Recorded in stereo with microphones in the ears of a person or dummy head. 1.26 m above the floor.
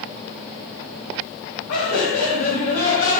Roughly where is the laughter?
Left.